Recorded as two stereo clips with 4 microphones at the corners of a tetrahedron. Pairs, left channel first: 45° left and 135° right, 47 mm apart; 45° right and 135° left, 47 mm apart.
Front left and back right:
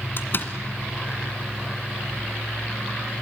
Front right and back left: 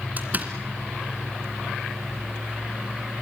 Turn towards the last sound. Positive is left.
turn(degrees=85)